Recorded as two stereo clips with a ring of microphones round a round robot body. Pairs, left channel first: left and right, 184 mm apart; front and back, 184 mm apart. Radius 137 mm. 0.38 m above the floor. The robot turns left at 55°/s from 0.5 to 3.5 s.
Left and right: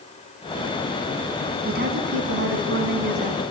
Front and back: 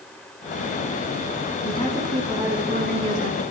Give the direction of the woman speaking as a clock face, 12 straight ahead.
2 o'clock.